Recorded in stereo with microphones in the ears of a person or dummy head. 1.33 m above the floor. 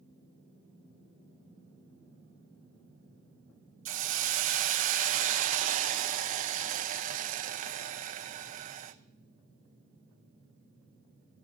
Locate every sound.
3.9 s a hiss: 45° right (ahead or behind), 1.0 m